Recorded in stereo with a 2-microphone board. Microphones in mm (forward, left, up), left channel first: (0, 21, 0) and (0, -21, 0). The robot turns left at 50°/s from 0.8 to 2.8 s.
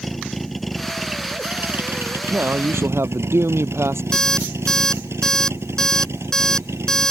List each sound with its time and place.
0.0 s a vehicle: 5° left; by 7.1 s 95° right
2.3 s a man speaking: 50° right (ahead or behind); by 4.0 s 75° right (ahead or behind)
4.1 s an alarm clock: 15° left (ahead or behind)